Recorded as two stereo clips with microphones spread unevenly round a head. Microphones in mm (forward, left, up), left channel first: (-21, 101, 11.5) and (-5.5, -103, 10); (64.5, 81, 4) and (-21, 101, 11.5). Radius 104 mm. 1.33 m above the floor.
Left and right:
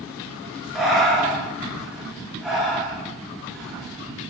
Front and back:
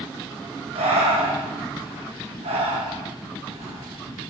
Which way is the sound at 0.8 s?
175° right.